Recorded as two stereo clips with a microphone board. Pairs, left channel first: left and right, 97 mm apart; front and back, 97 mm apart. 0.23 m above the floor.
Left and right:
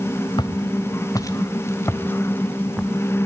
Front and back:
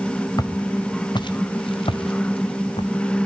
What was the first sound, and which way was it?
Footsteps, 50° left.